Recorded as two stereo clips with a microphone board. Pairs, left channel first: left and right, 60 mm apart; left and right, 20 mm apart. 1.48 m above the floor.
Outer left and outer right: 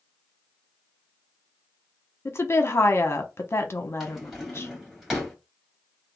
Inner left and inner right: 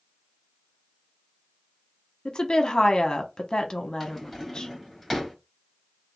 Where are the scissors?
I don't hear scissors.